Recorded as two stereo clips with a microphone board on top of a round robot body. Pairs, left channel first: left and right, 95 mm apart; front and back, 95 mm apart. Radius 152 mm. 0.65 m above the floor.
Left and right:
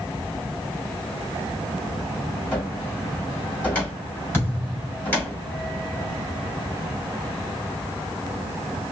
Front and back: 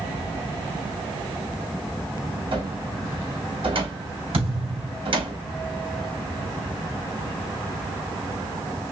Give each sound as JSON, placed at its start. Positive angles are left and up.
{"t": 2.5, "sound": "a cupboard door", "azimuth_deg": 160, "distance_m": 3.0}
{"t": 4.3, "sound": "a thud", "azimuth_deg": 160, "distance_m": 3.0}